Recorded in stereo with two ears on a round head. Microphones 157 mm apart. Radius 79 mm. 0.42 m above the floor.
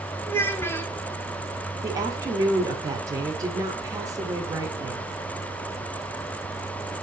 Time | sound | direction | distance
0.3 | a child speaking | 15° left (ahead or behind) | 1.1 m
1.8 | a woman speaking | 20° right (ahead or behind) | 1.5 m